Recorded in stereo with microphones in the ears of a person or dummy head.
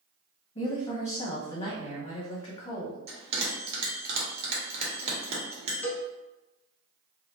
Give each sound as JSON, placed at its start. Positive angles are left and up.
{"t": 0.6, "sound": "a woman speaking", "side_deg": 45, "distance_m": 0.8}
{"t": 3.1, "sound": "a bell", "side_deg": -45, "distance_m": 0.9}
{"t": 5.8, "sound": "a cowbell", "side_deg": 10, "distance_m": 0.5}